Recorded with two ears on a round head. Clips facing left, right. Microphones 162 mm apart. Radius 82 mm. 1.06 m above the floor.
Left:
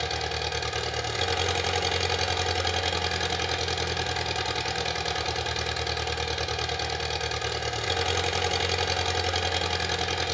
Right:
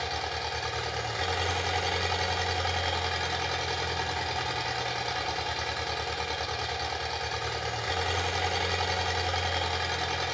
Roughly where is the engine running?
Left.